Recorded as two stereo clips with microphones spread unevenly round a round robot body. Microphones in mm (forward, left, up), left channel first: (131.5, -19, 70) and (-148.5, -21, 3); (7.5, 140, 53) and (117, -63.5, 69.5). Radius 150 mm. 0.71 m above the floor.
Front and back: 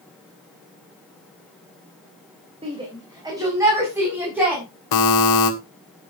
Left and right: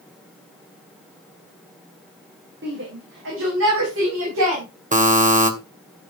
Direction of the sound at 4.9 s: Straight ahead.